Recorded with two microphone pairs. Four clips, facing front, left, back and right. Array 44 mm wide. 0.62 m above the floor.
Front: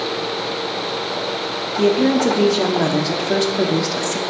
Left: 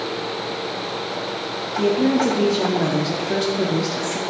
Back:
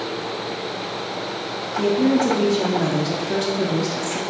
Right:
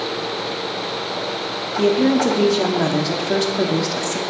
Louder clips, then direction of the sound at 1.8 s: Right 2 dB, front 2 dB; 50° right.